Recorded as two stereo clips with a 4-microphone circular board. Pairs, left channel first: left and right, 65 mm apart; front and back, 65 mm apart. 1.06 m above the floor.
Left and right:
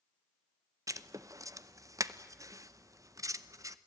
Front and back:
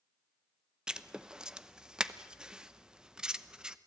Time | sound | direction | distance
0.9 | writing | 105° right | 0.9 m